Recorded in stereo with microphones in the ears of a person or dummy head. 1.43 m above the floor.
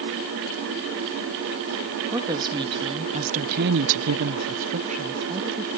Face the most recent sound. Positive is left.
turn(degrees=-20)  # may be behind; listen again after turning